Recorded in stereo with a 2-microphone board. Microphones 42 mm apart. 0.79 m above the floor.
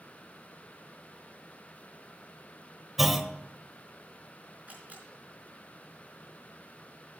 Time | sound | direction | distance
3.0 | a clunk | 5° right (ahead or behind) | 0.6 m
4.7 | a camera shutter | 40° right (ahead or behind) | 4.5 m